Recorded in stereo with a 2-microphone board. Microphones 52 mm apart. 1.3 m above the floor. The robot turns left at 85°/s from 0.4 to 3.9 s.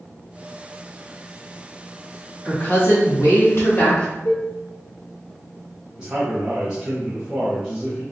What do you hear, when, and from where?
2.5 s a woman speaking: 150° left, 1.9 m; by 4.1 s 30° left, 1.9 m
4.2 s dishes clattering: 75° left (ahead or behind), 1.1 m
6.0 s a man speaking: 20° right (ahead or behind), 0.9 m